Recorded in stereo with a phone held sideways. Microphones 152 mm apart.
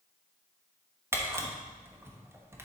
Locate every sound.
1.1 s a camera shutter: 15° right (ahead or behind), 1.1 m